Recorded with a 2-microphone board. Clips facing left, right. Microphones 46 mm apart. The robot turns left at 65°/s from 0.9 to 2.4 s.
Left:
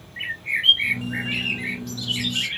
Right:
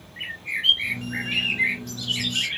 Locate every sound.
0.2 s a bird: 25° left, 2.5 m; by 2.5 s 75° right, 2.5 m